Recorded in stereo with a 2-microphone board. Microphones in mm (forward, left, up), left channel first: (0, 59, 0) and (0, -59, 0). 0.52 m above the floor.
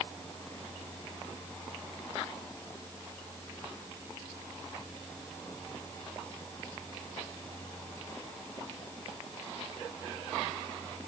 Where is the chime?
No chime in this recording.